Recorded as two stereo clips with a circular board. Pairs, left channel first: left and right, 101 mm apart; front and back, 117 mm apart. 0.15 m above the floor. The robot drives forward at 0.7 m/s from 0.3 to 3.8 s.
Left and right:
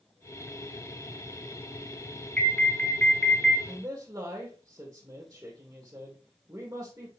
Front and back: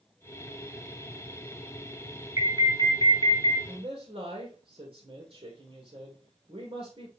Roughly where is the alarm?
Behind left.